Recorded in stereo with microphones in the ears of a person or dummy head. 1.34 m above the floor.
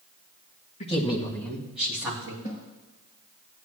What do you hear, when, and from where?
0.8 s a woman speaking: 45° left (ahead or behind), 1.6 m; by 2.3 s 15° right (ahead or behind), 2.5 m
2.4 s a snare drum: 60° left (ahead or behind), 4 m